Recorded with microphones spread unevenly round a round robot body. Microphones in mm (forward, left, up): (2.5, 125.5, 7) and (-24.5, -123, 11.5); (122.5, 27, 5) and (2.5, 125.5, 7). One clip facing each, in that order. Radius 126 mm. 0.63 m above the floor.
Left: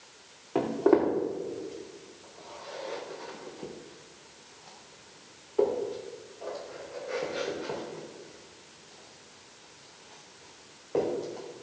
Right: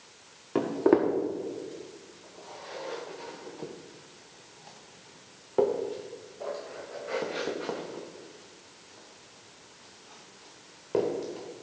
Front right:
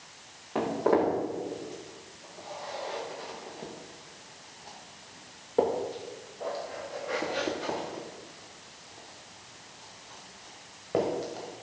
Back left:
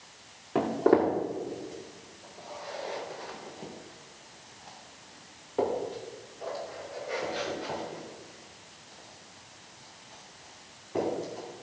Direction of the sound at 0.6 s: 160° right.